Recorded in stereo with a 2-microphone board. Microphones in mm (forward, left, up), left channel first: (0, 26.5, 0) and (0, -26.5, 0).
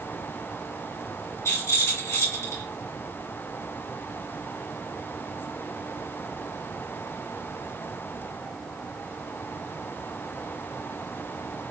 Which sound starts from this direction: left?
A rattle, at 1.4 s.